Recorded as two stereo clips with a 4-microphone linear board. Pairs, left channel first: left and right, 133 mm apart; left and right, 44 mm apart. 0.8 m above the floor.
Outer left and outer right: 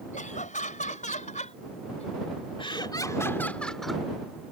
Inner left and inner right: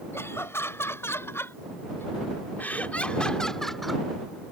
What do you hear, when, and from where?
0.1 s laughter: 75° left (ahead or behind); by 4.0 s centre (ahead or behind)